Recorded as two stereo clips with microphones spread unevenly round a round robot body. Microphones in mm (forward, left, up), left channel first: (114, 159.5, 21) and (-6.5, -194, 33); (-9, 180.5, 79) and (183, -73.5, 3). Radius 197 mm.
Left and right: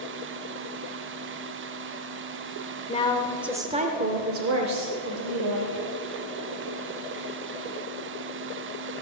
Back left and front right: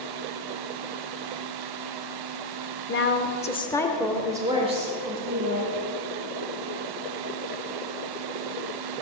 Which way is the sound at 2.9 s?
110° left.